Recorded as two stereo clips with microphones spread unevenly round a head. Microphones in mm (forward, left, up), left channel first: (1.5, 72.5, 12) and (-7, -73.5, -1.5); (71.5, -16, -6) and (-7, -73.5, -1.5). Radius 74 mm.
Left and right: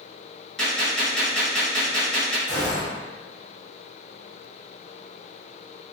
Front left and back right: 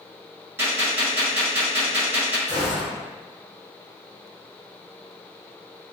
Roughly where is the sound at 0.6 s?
Behind.